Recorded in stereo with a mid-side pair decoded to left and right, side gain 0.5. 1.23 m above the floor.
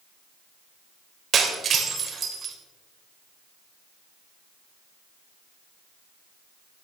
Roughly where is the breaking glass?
Ahead right.